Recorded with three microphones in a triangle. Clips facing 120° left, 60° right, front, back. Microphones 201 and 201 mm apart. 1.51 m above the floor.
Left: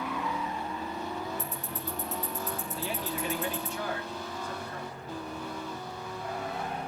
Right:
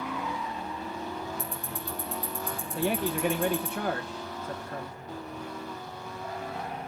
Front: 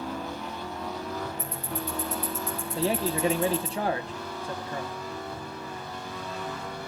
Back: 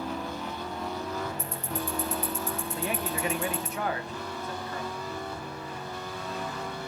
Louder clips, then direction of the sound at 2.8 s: Right 10 dB, front 8 dB; 55° right.